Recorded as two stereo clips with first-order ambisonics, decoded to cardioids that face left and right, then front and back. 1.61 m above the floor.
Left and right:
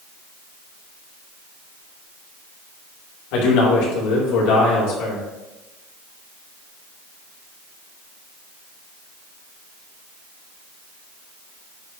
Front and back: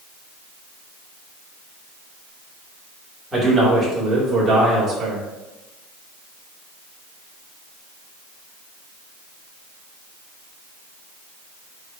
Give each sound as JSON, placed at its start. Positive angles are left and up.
{"t": 3.3, "sound": "a man speaking", "azimuth_deg": 95, "distance_m": 3.5}